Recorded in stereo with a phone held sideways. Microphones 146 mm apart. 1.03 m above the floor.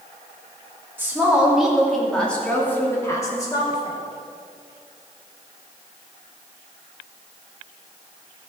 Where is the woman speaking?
15° right (ahead or behind), 2.5 m; by 4.0 s 30° left (ahead or behind), 3 m.